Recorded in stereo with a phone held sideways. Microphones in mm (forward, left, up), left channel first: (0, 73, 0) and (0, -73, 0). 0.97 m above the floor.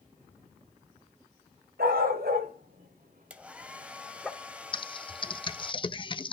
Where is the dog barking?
80° right, 3.5 m; by 4.3 s 5° left (ahead or behind), 1.4 m.